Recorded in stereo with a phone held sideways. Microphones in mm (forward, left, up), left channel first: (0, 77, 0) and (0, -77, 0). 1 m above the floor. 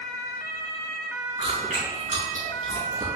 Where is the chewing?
55° right (ahead or behind), 3 m.